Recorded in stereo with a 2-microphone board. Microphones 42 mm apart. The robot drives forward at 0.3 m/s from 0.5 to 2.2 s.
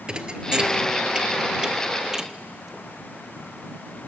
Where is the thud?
20° right (ahead or behind), 1.1 m; by 2.9 s 15° right (ahead or behind), 1.5 m.